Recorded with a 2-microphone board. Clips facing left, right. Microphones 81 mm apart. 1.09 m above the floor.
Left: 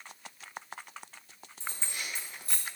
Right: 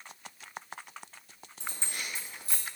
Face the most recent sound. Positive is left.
turn(degrees=-15)  # may be behind; listen again after turning